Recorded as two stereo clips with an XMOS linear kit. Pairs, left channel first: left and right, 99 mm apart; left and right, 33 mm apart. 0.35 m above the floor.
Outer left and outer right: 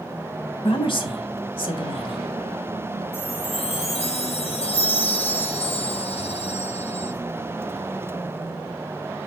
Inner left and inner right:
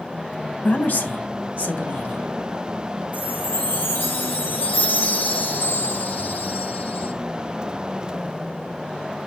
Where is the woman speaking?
60° left (ahead or behind), 2.5 m; by 3.0 s 50° left (ahead or behind), 2.5 m.